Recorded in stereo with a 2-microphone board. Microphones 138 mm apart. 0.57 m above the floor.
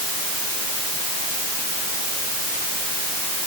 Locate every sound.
Only background noise.